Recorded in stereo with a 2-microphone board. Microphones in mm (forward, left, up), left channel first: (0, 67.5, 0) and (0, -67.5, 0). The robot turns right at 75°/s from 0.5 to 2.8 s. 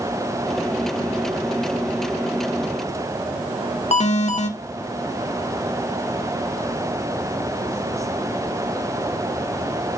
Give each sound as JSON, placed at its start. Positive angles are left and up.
{"t": 3.9, "sound": "an alarm", "side_deg": 55, "distance_m": 2.0}